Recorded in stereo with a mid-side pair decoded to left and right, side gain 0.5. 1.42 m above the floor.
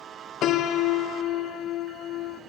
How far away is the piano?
About 0.9 m.